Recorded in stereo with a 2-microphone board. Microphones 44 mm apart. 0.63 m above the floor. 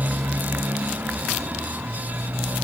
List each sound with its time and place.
0.0 s a motorcycle: 45° right (ahead or behind)